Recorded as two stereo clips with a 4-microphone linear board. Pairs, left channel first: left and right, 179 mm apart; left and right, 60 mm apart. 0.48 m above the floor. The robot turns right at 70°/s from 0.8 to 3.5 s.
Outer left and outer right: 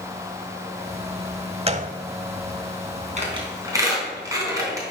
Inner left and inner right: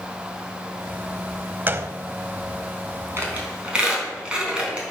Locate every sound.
1.7 s a gunshot: 30° right (ahead or behind), 0.6 m; by 1.9 s 50° right (ahead or behind), 0.6 m
3.2 s a squeak: 40° right (ahead or behind), 3.5 m; by 4.9 s 15° right (ahead or behind), 3.5 m